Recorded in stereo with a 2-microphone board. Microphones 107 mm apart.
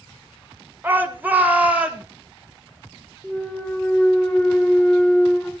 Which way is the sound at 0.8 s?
15° right (ahead or behind).